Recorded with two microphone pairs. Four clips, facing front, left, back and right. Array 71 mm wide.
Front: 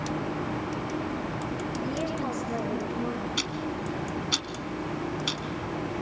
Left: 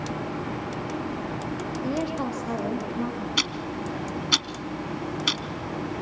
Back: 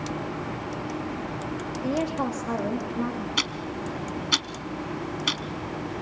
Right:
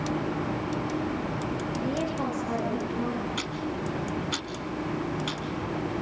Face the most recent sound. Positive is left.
turn(degrees=140)